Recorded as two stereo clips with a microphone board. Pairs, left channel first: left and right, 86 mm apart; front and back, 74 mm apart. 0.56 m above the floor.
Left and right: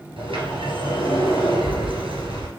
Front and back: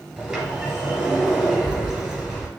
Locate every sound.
0.2 s a sliding door: 90° right, 2.5 m